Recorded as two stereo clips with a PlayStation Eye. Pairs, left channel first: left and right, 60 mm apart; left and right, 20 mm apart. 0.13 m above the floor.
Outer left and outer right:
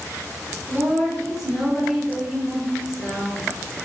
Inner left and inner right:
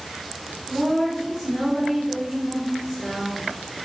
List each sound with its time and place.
0.7 s a woman speaking: 5° right (ahead or behind), 1.6 m